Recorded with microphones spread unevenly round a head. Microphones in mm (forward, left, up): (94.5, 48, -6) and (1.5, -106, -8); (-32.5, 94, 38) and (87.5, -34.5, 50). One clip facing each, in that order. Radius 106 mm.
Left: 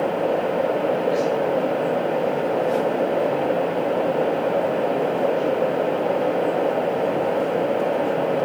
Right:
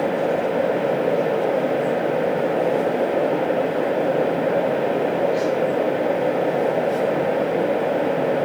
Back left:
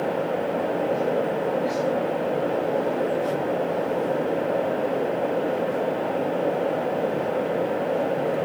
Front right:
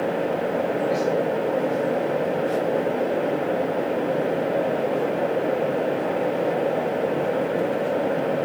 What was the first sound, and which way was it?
Only background noise.